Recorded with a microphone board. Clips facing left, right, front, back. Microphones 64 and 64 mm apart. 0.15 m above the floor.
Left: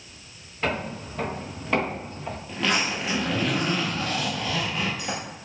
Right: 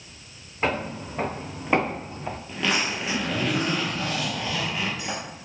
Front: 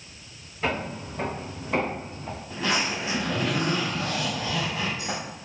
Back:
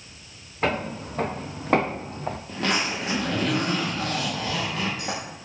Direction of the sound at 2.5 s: Straight behind.